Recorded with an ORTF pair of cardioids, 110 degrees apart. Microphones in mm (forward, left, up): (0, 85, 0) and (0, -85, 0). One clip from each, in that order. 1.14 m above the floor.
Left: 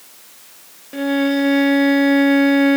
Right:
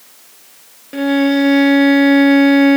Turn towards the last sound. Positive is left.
turn(degrees=-20)